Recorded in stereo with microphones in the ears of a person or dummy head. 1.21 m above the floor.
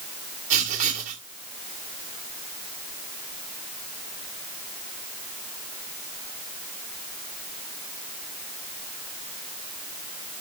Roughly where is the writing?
Right.